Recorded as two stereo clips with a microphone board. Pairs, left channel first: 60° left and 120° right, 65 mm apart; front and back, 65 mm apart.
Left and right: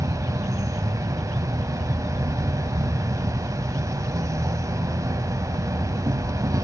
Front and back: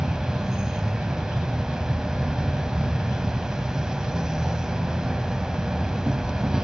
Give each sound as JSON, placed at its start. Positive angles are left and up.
{"t": 0.0, "sound": "an insect", "azimuth_deg": -100, "distance_m": 0.7}